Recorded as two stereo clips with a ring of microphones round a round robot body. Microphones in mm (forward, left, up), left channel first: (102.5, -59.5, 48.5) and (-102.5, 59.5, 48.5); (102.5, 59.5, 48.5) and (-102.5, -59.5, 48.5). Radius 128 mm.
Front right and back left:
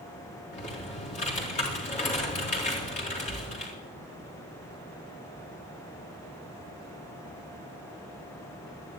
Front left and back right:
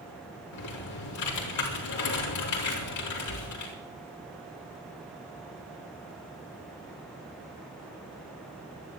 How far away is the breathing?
I don't hear breathing.